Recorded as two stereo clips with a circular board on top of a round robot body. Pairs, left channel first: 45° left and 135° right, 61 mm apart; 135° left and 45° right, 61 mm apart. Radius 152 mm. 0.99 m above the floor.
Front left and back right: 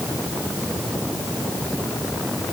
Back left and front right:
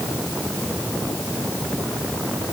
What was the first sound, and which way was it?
Only background noise.